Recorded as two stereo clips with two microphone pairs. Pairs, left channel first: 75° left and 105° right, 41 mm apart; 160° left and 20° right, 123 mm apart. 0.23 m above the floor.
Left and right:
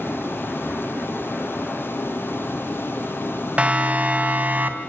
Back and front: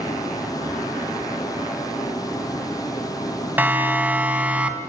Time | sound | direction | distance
0.0 | running water | 100° left | 5.5 m
3.6 | a siren | 80° right | 2.5 m